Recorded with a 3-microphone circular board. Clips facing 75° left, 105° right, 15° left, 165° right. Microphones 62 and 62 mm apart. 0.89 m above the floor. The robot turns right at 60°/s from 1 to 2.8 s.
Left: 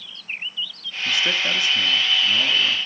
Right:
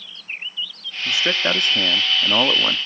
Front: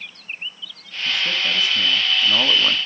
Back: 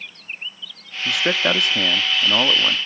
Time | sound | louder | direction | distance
1.1 | a man speaking | right 2 dB, back 3 dB | straight behind | 1.1 m